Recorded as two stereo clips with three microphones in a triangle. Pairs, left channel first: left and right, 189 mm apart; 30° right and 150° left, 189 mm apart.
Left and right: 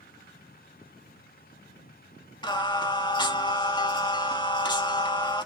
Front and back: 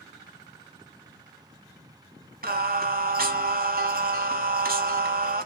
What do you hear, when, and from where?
2.4 s singing: 150° left, 0.6 m